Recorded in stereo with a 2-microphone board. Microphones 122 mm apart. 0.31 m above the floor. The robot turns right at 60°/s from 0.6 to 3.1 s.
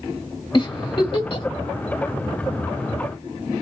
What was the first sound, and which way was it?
A giggle, 40° left (ahead or behind).